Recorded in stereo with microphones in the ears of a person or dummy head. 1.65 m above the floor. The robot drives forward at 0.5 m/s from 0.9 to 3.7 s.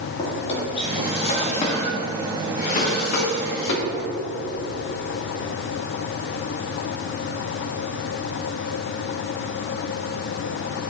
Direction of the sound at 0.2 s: 35° left (ahead or behind).